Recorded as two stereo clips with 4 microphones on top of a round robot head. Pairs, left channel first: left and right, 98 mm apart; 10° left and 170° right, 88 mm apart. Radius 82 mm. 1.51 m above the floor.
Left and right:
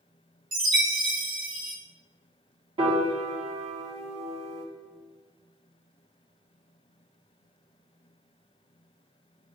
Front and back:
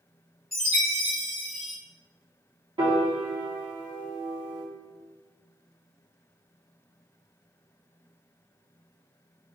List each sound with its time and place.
0.5 s a chime: 75° right, 1.2 m
2.8 s a piano: 125° right, 1.6 m